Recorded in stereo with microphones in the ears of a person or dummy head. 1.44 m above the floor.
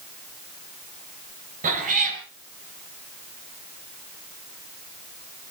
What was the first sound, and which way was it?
A cat meowing, 45° right (ahead or behind).